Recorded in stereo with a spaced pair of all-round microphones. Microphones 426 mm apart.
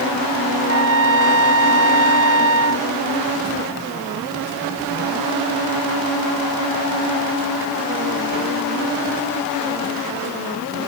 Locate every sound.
0.6 s a trumpet: 20° left (ahead or behind)